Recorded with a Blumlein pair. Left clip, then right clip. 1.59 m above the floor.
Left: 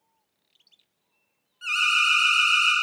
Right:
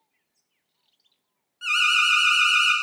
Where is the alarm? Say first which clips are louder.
Right 2 dB; 15° right, 0.9 m.